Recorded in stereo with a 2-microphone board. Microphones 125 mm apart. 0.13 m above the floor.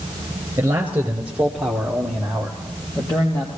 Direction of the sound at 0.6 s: 20° right (ahead or behind).